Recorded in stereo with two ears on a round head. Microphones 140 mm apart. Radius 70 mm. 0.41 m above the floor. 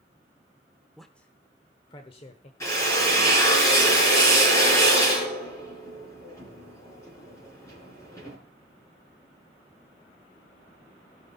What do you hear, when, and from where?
1.0 s a man speaking: centre (ahead or behind), 0.9 m; by 2.5 s 45° left (ahead or behind), 1.2 m
2.6 s a drill: 20° left (ahead or behind), 4.5 m